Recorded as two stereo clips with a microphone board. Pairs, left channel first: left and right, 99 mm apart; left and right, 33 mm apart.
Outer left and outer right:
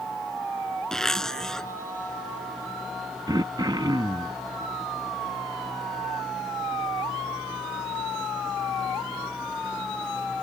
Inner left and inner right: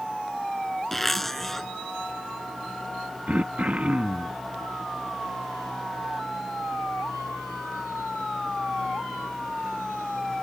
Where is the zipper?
5° left (ahead or behind).